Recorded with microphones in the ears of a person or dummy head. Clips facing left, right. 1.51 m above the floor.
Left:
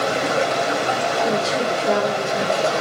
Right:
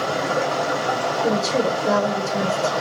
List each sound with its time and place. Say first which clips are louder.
0.0 s running water: left 2 dB; 35° left (ahead or behind), 1.6 m
1.2 s a woman speaking: right 1 dB; 65° right (ahead or behind), 0.8 m